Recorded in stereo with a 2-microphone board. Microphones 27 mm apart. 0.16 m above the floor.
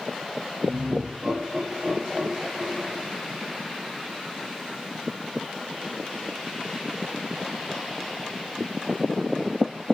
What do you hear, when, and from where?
0.6 s laughter: 50° right (ahead or behind), 6.5 m; by 3.1 s 55° right (ahead or behind), 9 m